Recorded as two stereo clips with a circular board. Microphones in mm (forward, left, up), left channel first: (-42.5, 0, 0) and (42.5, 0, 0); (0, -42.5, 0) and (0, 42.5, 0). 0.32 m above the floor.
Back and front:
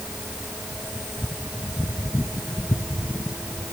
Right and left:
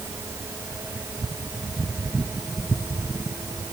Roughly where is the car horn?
I don't hear a car horn.